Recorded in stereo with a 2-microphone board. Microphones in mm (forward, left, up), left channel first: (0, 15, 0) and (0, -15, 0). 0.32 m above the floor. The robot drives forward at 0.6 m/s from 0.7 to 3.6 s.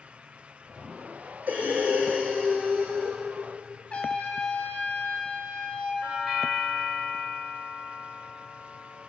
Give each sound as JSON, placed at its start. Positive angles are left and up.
{"t": 1.5, "sound": "breathing", "side_deg": -60, "distance_m": 3.0}
{"t": 3.9, "sound": "a trumpet", "side_deg": 35, "distance_m": 1.6}
{"t": 6.0, "sound": "a doorbell", "side_deg": -5, "distance_m": 1.9}